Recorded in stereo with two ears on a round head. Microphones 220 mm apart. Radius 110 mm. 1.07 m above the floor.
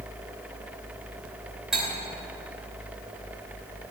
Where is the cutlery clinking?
Centre (ahead or behind), 3 m.